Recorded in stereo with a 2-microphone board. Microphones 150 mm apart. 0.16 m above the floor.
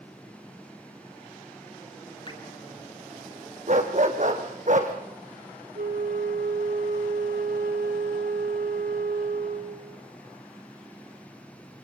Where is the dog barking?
55° right (ahead or behind), 2.5 m.